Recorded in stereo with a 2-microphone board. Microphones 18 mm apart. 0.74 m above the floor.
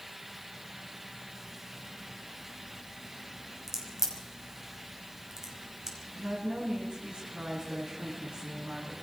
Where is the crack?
30° right (ahead or behind), 5.5 m.